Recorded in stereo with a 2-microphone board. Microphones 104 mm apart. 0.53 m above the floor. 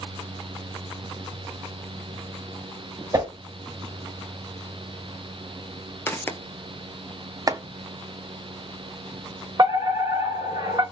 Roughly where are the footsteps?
Left.